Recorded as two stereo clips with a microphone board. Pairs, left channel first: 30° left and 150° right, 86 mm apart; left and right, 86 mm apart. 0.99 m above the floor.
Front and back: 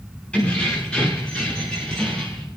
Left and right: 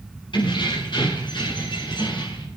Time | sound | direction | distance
0.3 | keys jangling | 110° left | 6.5 m